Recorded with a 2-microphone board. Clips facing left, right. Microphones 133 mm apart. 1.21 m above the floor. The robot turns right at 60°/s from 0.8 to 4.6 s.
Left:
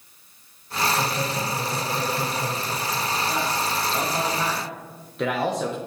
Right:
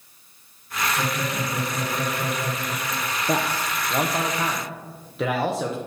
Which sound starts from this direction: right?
A man speaking, at 3.3 s.